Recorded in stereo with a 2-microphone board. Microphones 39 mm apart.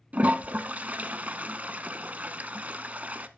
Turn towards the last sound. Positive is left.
turn(degrees=-40)  # may be behind; listen again after turning